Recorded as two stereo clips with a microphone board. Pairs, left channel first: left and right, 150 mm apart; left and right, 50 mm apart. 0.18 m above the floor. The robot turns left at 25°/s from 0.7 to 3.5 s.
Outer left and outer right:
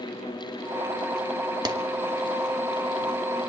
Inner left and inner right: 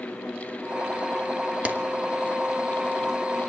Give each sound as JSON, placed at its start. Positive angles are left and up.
{"t": 1.6, "sound": "a clap", "side_deg": -30, "distance_m": 1.1}